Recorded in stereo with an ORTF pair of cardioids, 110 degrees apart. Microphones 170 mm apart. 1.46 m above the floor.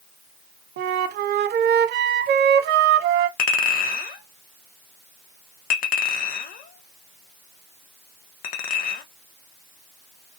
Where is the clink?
60° left, 1.0 m.